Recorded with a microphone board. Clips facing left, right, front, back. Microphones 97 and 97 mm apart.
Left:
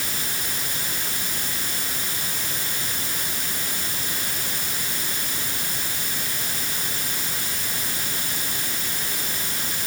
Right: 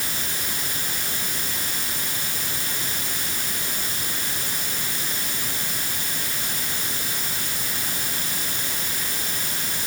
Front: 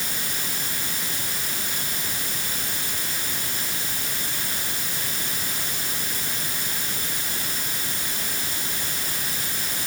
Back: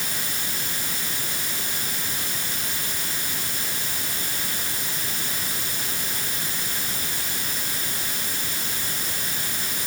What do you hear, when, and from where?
Only background noise.